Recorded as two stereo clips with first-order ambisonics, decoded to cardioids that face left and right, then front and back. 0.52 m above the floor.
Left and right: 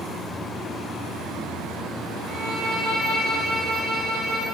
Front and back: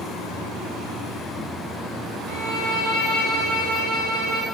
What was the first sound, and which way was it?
A violin, straight ahead.